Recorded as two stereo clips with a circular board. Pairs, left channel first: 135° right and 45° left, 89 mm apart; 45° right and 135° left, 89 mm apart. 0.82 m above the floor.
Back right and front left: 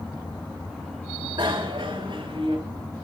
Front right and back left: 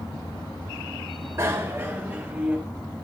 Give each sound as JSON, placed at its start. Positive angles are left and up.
{"t": 1.4, "sound": "a bicycle bell", "azimuth_deg": 75, "distance_m": 2.0}